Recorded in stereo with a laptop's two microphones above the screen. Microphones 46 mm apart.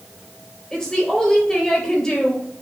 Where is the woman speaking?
10° left (ahead or behind), 4 m.